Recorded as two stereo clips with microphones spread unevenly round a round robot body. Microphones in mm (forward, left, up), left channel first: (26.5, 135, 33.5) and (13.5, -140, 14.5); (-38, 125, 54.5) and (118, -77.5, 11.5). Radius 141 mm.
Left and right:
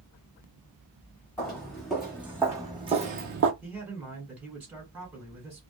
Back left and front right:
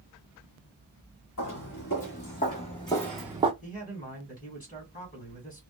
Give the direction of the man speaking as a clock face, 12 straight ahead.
6 o'clock.